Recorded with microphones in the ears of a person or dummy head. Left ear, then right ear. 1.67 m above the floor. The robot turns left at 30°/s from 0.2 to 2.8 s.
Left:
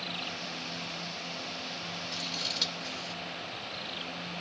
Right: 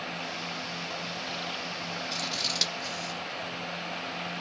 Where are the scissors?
65° right (ahead or behind), 0.9 m; by 3.2 s 55° right (ahead or behind), 0.9 m.